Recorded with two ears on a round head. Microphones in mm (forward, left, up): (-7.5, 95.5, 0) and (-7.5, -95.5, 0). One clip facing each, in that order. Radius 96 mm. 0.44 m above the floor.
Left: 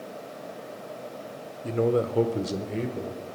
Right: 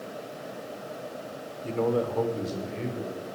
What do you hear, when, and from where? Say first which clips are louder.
1.6 s a man speaking: left 2 dB; 10° left (ahead or behind), 1.1 m; by 3.4 s 65° left (ahead or behind), 2.5 m